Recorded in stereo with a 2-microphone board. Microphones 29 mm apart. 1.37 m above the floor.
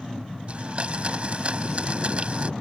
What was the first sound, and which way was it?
A blender, 40° right (ahead or behind).